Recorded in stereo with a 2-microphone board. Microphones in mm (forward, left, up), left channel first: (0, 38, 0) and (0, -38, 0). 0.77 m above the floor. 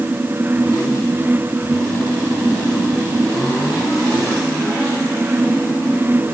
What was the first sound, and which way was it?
Only background noise.